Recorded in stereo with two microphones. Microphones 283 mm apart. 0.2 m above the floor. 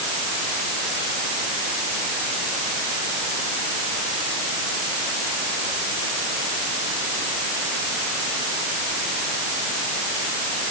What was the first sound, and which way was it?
Only background noise.